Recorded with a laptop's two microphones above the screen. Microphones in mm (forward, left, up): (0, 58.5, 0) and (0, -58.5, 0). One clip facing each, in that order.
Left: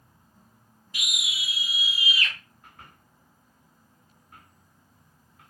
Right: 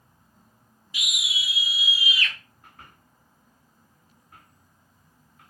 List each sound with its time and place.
0.9 s a scream: 45° left (ahead or behind), 0.8 m; by 2.3 s 40° left (ahead or behind), 1.4 m